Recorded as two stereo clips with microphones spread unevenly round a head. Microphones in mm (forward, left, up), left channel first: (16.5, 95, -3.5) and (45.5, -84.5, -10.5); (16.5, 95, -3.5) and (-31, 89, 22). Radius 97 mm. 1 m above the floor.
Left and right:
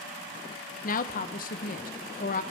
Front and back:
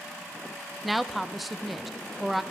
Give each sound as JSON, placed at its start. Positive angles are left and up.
{"t": 0.8, "sound": "a woman speaking", "azimuth_deg": 70, "distance_m": 0.5}